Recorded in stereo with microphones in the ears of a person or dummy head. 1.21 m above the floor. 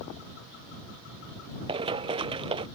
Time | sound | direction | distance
1.7 | running footsteps | 30° right (ahead or behind) | ?